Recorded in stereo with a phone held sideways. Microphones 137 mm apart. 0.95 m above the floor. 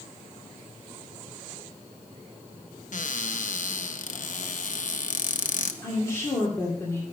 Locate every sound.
2.9 s a cupboard door: 65° left (ahead or behind), 0.7 m
5.8 s a woman speaking: 20° left (ahead or behind), 2.5 m